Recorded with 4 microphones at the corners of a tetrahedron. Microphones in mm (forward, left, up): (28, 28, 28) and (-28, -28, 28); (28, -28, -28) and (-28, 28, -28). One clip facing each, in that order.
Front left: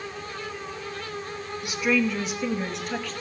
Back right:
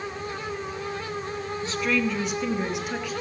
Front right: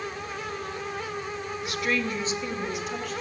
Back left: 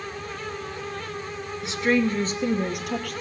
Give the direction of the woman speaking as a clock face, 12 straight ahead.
9 o'clock.